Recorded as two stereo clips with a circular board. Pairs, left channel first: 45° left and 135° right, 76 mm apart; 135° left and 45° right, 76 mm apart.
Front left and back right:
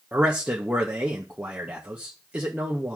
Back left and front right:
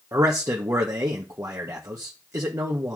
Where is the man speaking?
65° right, 1.1 m.